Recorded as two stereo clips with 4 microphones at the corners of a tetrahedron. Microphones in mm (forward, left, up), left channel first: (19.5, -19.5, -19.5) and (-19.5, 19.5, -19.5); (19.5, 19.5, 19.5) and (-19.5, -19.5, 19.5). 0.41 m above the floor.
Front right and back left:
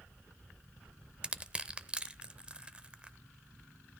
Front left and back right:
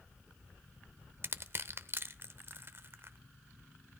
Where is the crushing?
160° right, 0.7 m.